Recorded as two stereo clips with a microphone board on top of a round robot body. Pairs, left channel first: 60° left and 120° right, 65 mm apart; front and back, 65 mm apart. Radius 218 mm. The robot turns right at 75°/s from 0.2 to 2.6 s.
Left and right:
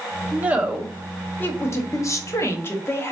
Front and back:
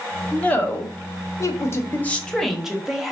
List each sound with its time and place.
0.3 s a woman speaking: 75° right, 1.2 m; by 3.1 s 100° left, 1.2 m